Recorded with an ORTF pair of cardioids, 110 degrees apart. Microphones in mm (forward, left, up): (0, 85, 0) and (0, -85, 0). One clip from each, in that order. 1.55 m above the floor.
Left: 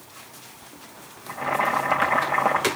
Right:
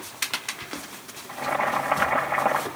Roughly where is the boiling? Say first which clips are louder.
Left 2 dB; ahead.